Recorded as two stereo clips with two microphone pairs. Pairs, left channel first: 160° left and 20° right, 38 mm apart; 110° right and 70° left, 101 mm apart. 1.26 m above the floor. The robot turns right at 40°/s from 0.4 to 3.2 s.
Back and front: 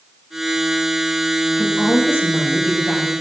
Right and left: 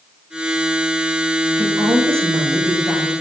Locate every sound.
1.6 s a woman speaking: 115° left, 6 m; by 3.1 s 175° left, 6 m